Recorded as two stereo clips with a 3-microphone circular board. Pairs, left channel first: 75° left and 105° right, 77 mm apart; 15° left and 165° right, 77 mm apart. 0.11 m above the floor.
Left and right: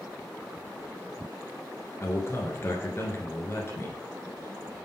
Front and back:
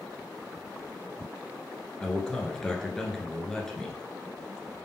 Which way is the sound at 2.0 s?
90° left.